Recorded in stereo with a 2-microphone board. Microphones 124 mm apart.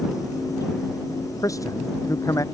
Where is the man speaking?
25° left (ahead or behind).